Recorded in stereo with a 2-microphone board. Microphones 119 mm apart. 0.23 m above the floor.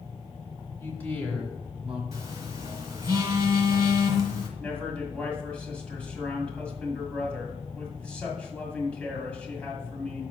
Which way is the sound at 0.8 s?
20° left (ahead or behind).